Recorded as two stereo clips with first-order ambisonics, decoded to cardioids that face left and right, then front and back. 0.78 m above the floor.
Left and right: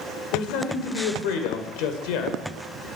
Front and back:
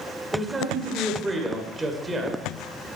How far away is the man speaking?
About 2.5 m.